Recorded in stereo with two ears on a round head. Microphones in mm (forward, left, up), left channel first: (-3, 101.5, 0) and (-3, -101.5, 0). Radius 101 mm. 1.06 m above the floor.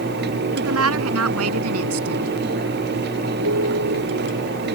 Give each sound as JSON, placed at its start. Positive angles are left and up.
{"t": 0.6, "sound": "a woman speaking", "side_deg": -70}
{"t": 3.4, "sound": "a piano", "side_deg": -70}